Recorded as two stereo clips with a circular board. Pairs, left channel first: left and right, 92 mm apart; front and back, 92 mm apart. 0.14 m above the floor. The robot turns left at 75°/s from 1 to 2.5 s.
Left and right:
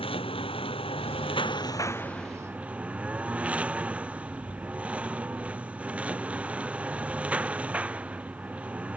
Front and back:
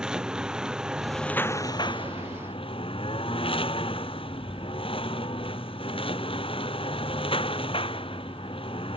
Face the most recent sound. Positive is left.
turn(degrees=-15)